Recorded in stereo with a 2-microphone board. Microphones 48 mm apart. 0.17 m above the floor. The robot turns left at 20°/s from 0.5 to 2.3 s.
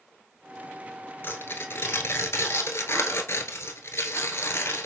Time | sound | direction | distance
1.2 | tearing paper | 50° left (ahead or behind) | 0.8 m